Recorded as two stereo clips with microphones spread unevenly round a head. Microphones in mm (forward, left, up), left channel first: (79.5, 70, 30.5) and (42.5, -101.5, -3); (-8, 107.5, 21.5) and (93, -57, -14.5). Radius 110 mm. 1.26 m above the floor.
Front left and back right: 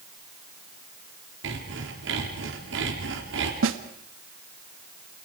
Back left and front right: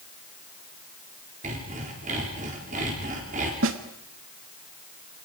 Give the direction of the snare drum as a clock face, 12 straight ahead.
3 o'clock.